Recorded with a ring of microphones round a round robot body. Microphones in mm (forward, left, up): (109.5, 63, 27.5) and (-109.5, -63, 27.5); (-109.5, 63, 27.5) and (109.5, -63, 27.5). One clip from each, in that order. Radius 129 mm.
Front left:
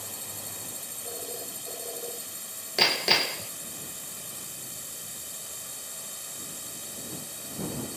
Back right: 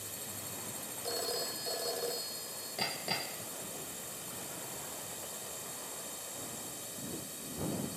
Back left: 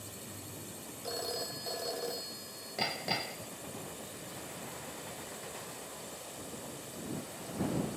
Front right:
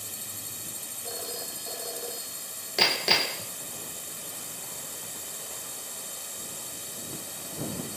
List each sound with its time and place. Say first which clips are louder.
0.0 s a drone: front left 5 dB, front right 7 dB; 45° right
1.0 s a phone ringing: back right 4 dB, back left 1 dB; 120° right
2.8 s hammering: front left 14 dB, front right 12 dB; 5° right